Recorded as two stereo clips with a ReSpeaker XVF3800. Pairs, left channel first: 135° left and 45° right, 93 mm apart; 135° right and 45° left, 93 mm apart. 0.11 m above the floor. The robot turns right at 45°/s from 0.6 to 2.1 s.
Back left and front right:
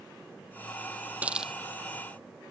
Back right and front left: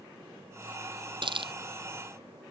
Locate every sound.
1.2 s a hiss: 25° left; by 1.5 s 40° left